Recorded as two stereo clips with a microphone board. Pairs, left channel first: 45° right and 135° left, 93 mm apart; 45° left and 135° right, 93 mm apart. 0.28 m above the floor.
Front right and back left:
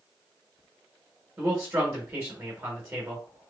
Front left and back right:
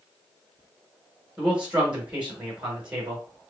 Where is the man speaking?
160° left, 1.3 m.